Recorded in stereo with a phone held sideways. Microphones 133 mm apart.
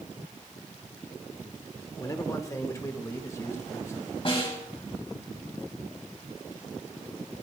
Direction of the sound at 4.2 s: 45° left (ahead or behind).